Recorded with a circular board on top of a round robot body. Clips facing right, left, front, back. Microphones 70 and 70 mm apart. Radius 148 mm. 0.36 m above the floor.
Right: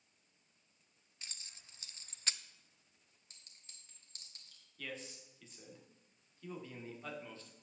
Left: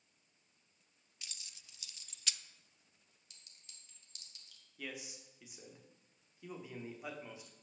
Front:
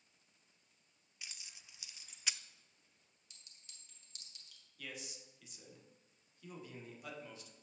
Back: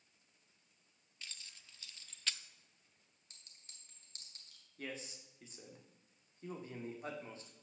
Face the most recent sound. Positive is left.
turn(degrees=160)